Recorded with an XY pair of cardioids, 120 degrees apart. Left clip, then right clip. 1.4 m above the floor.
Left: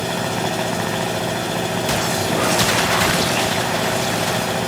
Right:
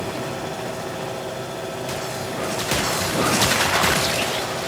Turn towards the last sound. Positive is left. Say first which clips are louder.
# left 6 dB
turn(degrees=60)